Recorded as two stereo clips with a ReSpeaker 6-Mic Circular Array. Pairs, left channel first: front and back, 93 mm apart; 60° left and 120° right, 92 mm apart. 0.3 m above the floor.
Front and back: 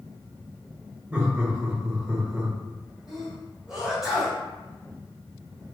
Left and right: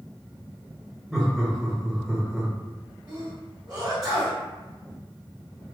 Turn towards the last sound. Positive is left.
turn(degrees=-100)